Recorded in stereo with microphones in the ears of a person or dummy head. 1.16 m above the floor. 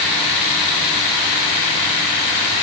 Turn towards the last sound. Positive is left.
No sound to turn to.